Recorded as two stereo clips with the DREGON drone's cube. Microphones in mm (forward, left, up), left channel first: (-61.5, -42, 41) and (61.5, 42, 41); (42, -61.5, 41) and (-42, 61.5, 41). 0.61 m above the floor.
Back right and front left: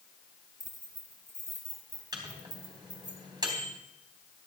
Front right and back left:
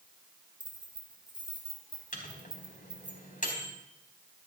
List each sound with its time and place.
0.6 s keys jangling: 65° left, 3.5 m
2.1 s a microwave: 30° right, 3.5 m